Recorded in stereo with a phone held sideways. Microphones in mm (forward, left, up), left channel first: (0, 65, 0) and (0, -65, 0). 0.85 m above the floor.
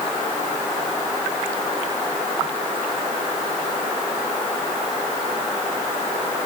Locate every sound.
Only background noise.